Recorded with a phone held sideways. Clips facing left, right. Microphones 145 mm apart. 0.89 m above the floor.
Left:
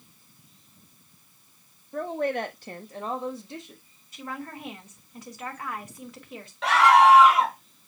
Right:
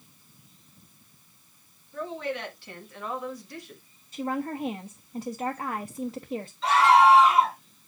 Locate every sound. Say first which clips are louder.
1.9 s a woman speaking: left 5 dB; 60° left (ahead or behind), 1.6 m; by 3.8 s 15° left (ahead or behind), 1.9 m
4.1 s a woman speaking: right 7 dB; 30° right (ahead or behind), 0.9 m
6.6 s a scream: left 1 dB; 70° left (ahead or behind), 3 m